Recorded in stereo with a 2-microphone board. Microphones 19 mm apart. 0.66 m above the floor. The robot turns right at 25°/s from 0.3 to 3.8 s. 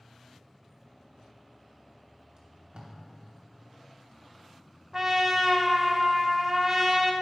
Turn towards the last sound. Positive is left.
turn(degrees=-25)  # may be behind; listen again after turning